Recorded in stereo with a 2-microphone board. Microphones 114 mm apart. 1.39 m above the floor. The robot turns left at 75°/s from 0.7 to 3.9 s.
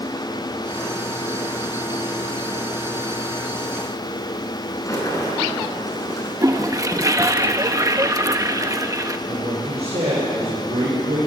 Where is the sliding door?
30° left (ahead or behind), 5 m.